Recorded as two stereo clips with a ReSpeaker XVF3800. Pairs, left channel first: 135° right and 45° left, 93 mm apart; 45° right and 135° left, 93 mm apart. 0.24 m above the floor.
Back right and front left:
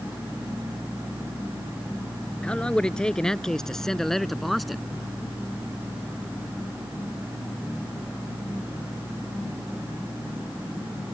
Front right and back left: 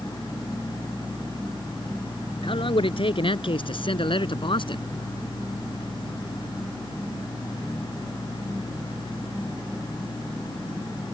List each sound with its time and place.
2.4 s a man speaking: 55° right; by 4.8 s 45° right